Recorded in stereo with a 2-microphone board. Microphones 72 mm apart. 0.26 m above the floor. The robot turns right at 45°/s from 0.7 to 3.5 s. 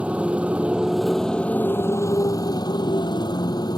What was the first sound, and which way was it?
A motorcycle, 15° right.